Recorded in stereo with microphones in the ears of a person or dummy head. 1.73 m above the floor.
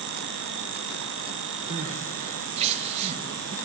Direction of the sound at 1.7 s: 35° right (ahead or behind).